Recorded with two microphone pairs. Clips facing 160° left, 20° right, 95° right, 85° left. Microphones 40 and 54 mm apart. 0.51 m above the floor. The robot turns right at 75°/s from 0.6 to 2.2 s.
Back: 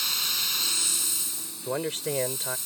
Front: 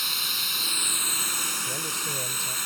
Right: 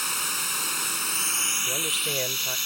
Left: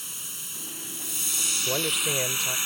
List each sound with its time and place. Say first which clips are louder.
0.0 s running water: front 1 dB, right 13 dB; 105° right; by 2.7 s 15° left
1.7 s a man speaking: back 2 dB, left 2 dB; 140° left; by 2.6 s 175° right